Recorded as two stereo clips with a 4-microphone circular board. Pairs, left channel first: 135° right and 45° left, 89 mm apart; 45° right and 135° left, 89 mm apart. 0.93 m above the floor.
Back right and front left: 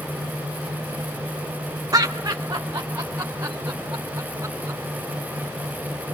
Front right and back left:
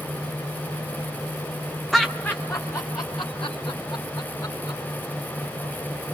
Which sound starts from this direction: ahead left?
Laughter, at 1.9 s.